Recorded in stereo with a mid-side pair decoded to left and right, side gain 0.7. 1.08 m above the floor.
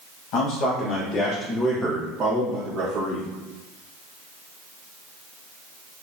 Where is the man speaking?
65° left, 1.1 m; by 3.3 s 55° right, 1.3 m.